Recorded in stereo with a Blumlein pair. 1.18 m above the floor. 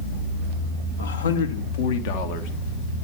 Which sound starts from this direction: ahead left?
A man speaking, at 1.0 s.